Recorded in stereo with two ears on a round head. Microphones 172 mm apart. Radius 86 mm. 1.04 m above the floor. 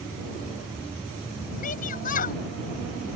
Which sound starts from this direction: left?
A shout, at 1.6 s.